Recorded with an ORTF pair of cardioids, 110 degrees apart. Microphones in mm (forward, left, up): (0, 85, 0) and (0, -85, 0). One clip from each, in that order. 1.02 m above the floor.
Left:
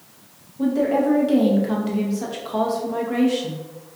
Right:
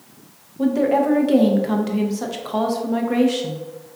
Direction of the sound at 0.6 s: 20° right.